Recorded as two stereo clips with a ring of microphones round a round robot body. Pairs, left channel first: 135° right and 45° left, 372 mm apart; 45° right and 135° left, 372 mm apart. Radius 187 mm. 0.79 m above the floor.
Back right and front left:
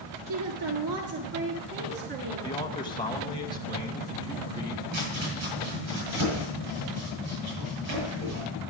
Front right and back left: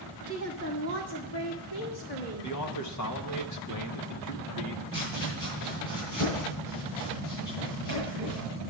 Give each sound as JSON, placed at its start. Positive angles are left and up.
{"t": 0.3, "sound": "a woman speaking", "azimuth_deg": 10, "distance_m": 1.4}
{"t": 2.4, "sound": "a man speaking", "azimuth_deg": -60, "distance_m": 1.3}
{"t": 4.9, "sound": "chopping", "azimuth_deg": -5, "distance_m": 7.5}